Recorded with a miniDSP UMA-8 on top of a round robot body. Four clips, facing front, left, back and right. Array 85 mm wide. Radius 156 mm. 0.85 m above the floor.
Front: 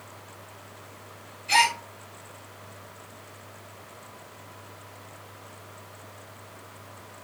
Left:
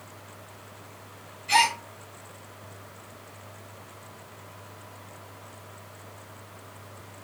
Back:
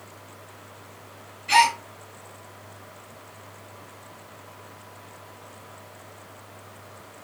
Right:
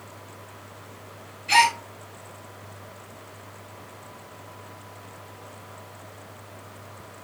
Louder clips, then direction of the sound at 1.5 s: Right 3 dB, back 4 dB; 160° right.